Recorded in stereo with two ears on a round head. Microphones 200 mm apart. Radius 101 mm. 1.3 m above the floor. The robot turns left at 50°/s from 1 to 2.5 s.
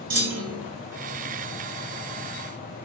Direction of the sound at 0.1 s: 55° right (ahead or behind).